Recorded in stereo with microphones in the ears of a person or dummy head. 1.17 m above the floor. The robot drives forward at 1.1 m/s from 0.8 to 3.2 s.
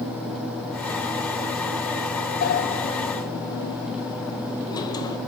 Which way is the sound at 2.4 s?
40° left (ahead or behind).